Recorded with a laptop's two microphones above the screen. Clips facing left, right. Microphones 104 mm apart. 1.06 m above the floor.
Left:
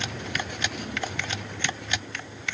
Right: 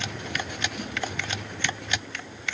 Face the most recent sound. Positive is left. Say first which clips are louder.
# even
turn(degrees=-20)  # may be behind; listen again after turning